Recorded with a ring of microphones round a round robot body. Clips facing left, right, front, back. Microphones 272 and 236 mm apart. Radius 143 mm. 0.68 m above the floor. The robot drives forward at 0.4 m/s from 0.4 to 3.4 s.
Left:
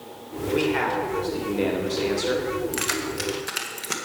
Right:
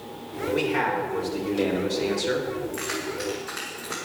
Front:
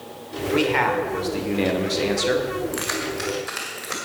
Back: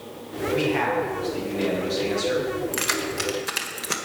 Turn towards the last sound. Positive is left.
turn(degrees=130)